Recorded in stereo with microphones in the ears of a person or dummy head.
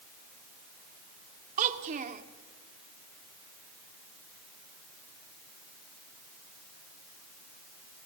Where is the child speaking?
50° right (ahead or behind), 2 m.